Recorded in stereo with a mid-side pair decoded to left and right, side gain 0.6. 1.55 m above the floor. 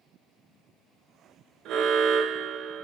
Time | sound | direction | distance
1.6 | an alarm | 65° right | 4.5 m